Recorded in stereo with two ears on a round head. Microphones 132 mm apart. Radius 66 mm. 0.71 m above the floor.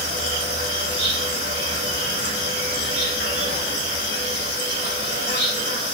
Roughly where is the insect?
Right.